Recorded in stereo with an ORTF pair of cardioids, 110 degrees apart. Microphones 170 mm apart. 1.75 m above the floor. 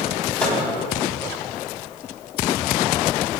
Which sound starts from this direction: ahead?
A microwave, at 0.4 s.